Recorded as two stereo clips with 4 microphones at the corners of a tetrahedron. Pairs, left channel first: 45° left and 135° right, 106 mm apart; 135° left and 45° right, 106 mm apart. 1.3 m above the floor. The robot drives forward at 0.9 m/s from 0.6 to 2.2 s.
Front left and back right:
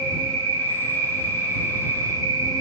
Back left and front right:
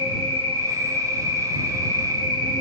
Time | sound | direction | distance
0.0 | an insect | 30° right | 1.8 m